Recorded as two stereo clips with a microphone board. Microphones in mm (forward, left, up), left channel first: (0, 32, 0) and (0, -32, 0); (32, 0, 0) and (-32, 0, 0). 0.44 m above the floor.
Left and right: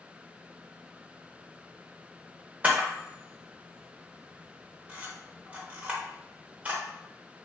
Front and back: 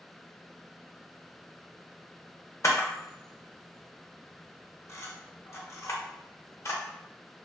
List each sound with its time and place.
2.6 s a camera shutter: 25° right, 0.6 m